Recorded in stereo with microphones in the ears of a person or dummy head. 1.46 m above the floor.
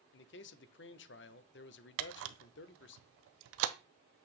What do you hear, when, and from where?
0.1 s a man speaking: 60° left (ahead or behind), 0.6 m
2.0 s a camera shutter: 85° right, 0.7 m